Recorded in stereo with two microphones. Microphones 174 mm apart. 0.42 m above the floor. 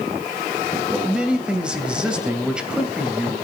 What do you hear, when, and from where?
0.9 s a man speaking: 5° right (ahead or behind), 2 m